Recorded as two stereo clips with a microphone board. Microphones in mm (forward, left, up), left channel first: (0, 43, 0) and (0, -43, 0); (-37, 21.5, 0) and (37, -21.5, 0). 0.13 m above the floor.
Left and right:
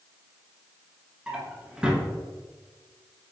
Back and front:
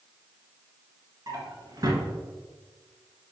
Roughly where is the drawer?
Ahead.